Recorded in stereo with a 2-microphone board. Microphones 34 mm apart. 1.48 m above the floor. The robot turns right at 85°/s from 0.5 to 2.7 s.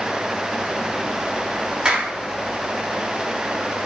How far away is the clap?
About 2.5 m.